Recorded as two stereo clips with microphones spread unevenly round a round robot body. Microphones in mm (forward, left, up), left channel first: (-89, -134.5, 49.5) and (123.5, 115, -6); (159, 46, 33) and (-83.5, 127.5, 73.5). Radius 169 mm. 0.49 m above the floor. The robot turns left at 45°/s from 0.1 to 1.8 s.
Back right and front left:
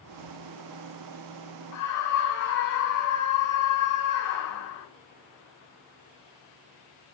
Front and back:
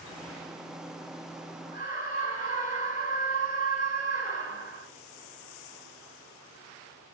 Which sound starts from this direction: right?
A scream, at 1.7 s.